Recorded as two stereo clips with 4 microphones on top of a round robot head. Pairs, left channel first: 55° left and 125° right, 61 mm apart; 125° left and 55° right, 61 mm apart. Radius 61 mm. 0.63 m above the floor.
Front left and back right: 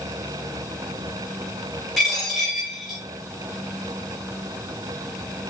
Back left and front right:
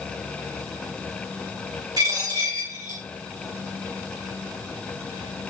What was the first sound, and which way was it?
A dropped coin, 25° right.